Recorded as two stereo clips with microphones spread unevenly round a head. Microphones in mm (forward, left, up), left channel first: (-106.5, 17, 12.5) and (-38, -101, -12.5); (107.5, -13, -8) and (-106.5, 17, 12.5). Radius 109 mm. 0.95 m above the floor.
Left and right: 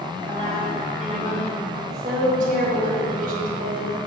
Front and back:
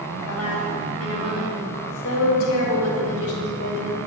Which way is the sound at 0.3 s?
Straight ahead.